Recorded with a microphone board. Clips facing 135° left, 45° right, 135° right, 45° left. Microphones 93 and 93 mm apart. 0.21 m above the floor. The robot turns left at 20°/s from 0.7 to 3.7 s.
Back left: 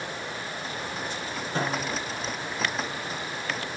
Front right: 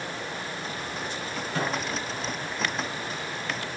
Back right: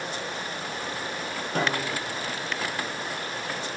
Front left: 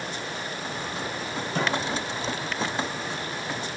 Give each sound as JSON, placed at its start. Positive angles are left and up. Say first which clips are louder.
{"t": 1.6, "sound": "a snare drum", "louder": "back left 1 dB, even", "azimuth_deg": -160, "distance_m": 6.0}